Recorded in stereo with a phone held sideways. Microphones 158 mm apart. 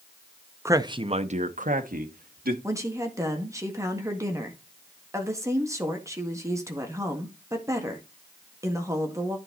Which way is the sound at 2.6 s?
20° right (ahead or behind).